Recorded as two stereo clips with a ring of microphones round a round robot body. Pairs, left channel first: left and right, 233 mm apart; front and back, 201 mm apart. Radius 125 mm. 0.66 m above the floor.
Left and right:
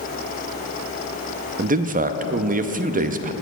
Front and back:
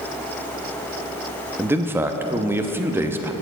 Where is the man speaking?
110° right, 0.6 m.